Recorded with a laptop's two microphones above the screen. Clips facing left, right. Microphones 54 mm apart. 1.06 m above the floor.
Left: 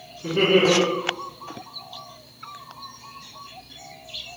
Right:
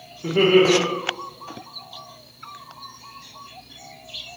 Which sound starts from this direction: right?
Laughter, at 0.2 s.